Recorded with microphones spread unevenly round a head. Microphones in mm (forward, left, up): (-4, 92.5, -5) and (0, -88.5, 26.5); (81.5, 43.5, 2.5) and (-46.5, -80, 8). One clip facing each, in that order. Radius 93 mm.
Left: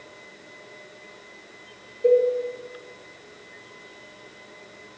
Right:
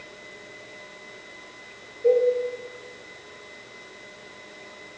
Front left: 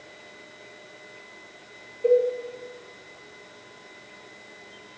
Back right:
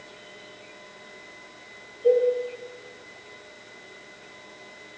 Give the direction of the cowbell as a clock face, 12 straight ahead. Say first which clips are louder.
Left 1 dB, even; 10 o'clock.